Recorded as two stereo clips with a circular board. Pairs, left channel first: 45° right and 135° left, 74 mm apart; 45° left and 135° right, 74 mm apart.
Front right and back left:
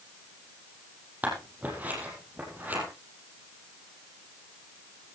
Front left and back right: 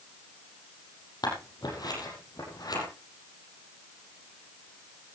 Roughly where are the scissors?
Left.